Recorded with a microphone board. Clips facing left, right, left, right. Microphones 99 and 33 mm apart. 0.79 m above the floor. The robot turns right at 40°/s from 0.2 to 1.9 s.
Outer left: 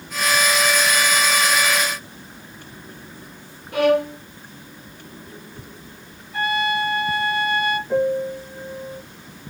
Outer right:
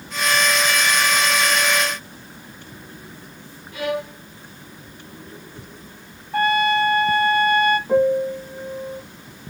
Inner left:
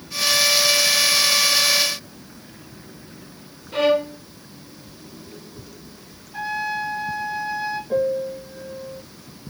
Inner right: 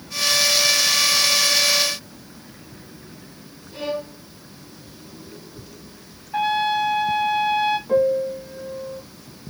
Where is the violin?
65° left (ahead or behind), 0.8 m.